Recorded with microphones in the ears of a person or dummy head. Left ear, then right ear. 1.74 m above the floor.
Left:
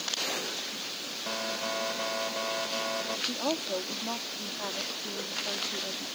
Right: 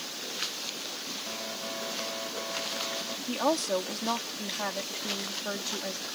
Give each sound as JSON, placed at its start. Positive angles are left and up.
{"t": 1.3, "sound": "an alarm", "side_deg": 80}
{"t": 3.3, "sound": "a woman speaking", "side_deg": -70}